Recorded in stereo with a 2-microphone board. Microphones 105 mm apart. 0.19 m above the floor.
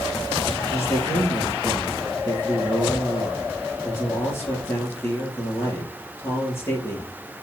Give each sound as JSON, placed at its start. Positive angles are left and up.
{"t": 0.7, "sound": "a man speaking", "side_deg": 20, "distance_m": 3.5}